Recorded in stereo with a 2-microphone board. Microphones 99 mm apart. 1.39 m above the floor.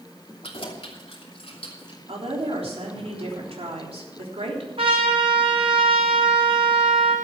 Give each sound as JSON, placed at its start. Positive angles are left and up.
{"t": 0.4, "sound": "keys jangling", "side_deg": 70, "distance_m": 2.5}
{"t": 2.1, "sound": "a woman speaking", "side_deg": -85, "distance_m": 3.5}
{"t": 4.8, "sound": "a trumpet", "side_deg": -70, "distance_m": 3.0}